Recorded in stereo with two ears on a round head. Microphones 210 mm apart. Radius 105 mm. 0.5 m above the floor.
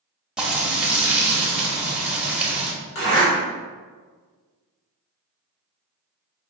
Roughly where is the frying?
Centre.